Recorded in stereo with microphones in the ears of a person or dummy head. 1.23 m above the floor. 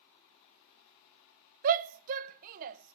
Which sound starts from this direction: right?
A shout, at 1.6 s.